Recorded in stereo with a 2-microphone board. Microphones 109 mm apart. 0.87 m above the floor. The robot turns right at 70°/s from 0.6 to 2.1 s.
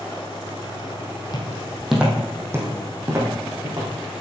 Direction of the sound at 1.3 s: 40° left (ahead or behind).